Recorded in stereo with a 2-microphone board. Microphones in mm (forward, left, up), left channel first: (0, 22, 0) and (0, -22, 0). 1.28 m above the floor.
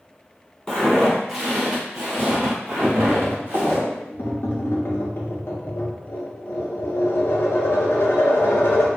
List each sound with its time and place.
0.7 s footsteps: 15° left (ahead or behind), 1.4 m; by 3.8 s 50° right (ahead or behind), 2 m
2.8 s tapping: 60° left (ahead or behind), 0.6 m